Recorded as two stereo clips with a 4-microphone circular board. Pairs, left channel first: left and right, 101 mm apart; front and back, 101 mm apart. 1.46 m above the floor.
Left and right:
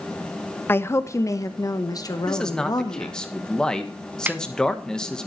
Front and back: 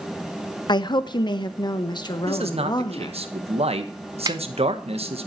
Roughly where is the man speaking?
Behind.